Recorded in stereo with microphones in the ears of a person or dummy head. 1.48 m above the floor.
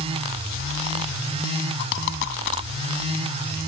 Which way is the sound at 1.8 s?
70° left (ahead or behind).